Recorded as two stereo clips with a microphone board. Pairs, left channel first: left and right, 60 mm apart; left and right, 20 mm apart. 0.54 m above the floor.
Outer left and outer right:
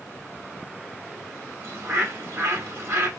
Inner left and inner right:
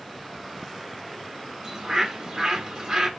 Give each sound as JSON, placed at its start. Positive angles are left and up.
{"t": 1.6, "sound": "a bird", "side_deg": -45, "distance_m": 1.5}